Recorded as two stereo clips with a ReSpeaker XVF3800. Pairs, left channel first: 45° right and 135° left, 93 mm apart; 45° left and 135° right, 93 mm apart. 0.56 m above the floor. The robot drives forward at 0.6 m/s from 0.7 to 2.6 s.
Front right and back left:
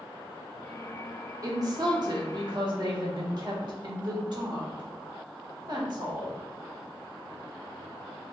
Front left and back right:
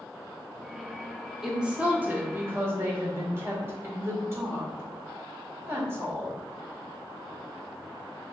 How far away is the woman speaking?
About 0.7 m.